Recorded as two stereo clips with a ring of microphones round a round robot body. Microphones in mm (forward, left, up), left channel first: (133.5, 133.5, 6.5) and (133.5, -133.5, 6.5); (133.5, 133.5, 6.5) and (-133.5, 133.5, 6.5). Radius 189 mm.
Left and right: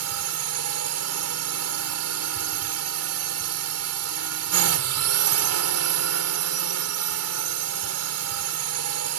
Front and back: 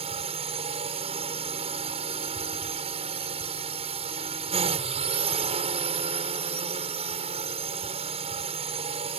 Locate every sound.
0.0 s a drone: 110° right